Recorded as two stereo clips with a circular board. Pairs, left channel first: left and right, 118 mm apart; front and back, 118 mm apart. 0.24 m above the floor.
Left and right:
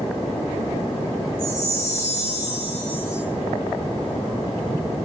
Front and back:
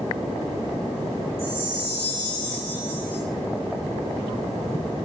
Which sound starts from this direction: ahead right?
A chime, at 1.4 s.